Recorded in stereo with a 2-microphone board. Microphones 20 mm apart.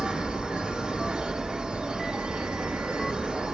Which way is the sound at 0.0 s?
65° right (ahead or behind).